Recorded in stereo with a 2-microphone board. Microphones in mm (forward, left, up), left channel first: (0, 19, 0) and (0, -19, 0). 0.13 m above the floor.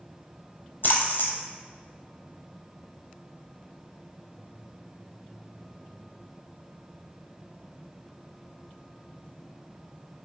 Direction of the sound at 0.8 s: 55° left (ahead or behind).